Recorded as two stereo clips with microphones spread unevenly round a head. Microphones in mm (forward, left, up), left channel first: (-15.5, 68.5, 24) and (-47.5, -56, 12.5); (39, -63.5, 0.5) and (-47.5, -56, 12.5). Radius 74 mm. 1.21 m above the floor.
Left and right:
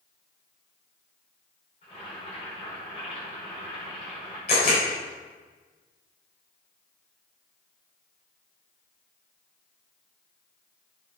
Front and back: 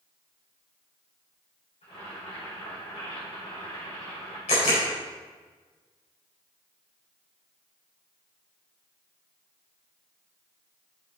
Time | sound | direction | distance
1.8 | boiling | 25° left | 5.5 m
4.5 | a camera shutter | 30° left | 5.5 m